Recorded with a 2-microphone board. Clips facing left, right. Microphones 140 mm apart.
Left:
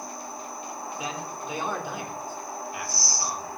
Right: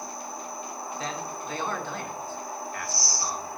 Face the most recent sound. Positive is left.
turn(degrees=10)  # may be behind; listen again after turning